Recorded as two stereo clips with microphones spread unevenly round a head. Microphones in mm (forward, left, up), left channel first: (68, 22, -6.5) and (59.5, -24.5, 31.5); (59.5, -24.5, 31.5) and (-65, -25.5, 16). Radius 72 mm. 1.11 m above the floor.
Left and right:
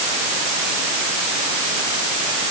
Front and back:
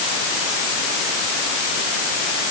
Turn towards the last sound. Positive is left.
No sound to turn to.